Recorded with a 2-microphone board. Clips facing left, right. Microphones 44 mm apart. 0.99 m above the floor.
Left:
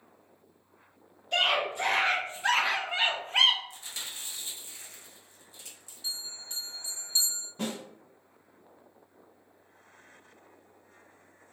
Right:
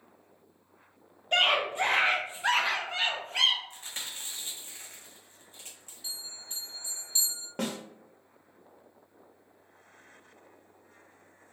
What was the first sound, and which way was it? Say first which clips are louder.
A scream: right 2 dB; 40° right (ahead or behind).